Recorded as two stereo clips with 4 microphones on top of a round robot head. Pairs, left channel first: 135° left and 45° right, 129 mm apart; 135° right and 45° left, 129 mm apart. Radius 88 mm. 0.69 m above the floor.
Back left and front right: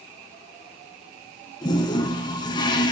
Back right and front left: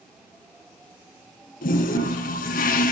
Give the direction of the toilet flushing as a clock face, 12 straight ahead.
5 o'clock.